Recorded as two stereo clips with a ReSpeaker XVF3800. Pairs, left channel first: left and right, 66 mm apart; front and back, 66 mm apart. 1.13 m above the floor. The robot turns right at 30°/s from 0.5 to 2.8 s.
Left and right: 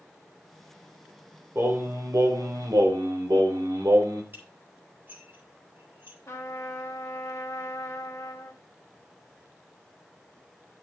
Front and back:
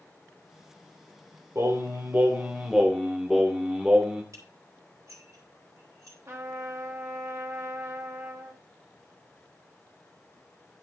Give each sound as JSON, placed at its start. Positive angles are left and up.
{"t": 1.6, "sound": "singing", "azimuth_deg": -135, "distance_m": 1.5}
{"t": 4.3, "sound": "dishes clattering", "azimuth_deg": -140, "distance_m": 4.0}
{"t": 6.3, "sound": "a trumpet", "azimuth_deg": 135, "distance_m": 1.6}